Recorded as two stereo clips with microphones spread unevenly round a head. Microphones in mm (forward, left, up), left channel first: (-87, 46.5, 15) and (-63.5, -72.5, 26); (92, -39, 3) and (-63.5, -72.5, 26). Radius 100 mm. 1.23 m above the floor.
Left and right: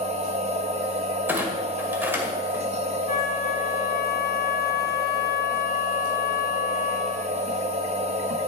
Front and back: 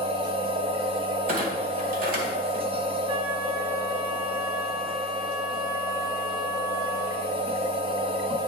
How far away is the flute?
About 1.5 m.